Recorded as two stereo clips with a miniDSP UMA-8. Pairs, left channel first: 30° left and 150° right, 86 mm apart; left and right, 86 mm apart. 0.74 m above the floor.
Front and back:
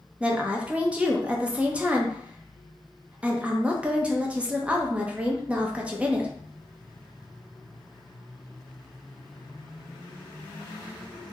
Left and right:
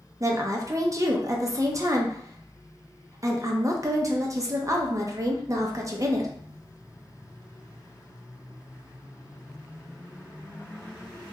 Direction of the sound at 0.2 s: 85° right.